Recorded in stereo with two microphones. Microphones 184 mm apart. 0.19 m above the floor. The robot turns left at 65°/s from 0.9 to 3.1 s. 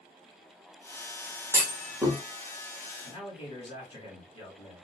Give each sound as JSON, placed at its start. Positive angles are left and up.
{"t": 1.5, "sound": "a clunk", "side_deg": -15, "distance_m": 1.6}
{"t": 3.0, "sound": "a man speaking", "side_deg": 30, "distance_m": 1.7}